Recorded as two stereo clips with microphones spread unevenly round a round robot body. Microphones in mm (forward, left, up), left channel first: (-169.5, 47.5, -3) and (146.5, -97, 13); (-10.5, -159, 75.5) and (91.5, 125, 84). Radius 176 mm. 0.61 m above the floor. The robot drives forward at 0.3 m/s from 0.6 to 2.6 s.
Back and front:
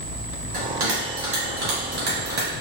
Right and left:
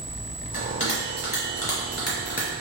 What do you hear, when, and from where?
0.5 s a bell: 50° right, 1.5 m; by 2.5 s 80° right, 1.4 m